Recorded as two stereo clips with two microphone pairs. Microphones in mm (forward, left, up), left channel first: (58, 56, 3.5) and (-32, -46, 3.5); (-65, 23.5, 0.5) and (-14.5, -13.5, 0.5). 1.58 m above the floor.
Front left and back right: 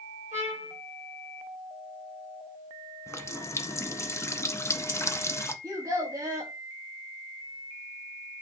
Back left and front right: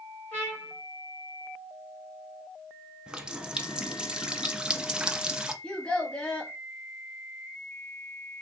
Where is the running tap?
30° left, 0.5 m.